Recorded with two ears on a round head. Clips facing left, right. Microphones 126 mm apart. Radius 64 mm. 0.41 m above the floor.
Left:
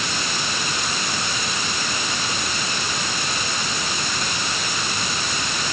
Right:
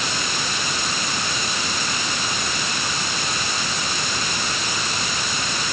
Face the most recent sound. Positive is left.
No sound to turn to.